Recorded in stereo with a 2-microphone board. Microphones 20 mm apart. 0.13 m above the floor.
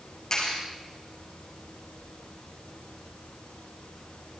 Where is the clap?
35° left (ahead or behind), 7 m.